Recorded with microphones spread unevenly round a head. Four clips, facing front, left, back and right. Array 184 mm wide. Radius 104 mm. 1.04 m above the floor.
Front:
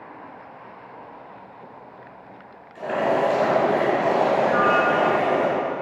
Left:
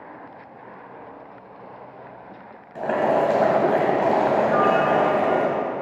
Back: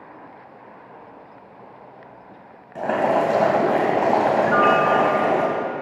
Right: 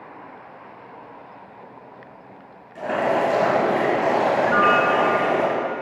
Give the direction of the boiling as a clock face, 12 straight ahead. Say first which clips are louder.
Left 1 dB, back 2 dB; 7 o'clock.